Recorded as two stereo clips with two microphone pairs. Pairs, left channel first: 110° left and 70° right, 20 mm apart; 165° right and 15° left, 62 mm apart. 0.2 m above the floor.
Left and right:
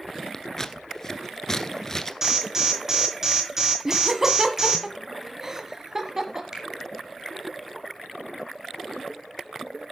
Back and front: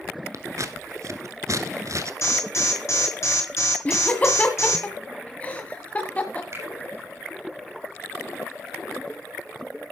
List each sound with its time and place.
0.3 s scissors: 40° left, 1.3 m
2.2 s an alarm: 135° right, 5 m
3.9 s laughter: 120° right, 1.4 m
6.5 s a finger snap: 20° right, 7 m